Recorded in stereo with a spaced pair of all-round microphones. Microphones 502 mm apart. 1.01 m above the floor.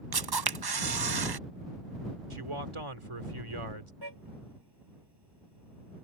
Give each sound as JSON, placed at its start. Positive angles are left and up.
{"t": 0.1, "sound": "a camera shutter", "side_deg": -50}
{"t": 2.3, "sound": "a man speaking", "side_deg": -75}
{"t": 4.0, "sound": "a car horn", "side_deg": -50}